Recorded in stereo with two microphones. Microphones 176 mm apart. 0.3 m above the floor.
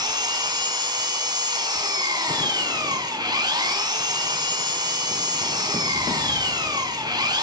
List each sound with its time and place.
0.0 s an engine running: 25° right (ahead or behind), 2.5 m